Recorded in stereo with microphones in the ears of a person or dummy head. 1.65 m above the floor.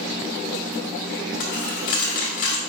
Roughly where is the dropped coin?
Left.